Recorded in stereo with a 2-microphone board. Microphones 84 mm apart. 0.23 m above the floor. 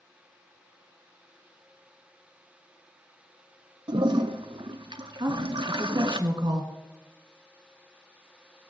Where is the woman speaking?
60° right (ahead or behind), 2.5 m.